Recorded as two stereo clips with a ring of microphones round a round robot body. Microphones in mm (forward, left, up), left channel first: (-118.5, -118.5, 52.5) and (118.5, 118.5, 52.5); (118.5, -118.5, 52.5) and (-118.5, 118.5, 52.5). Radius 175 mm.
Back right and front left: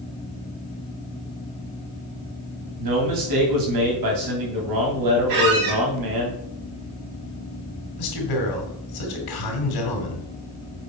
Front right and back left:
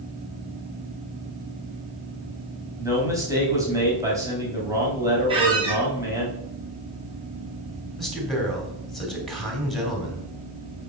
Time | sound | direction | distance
2.8 | a man speaking | 55° left | 3.5 m
5.3 | a squeak | 60° left | 2.5 m
8.0 | a man speaking | 135° right | 3 m